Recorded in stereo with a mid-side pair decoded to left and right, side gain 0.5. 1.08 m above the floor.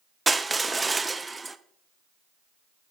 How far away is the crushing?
About 0.5 m.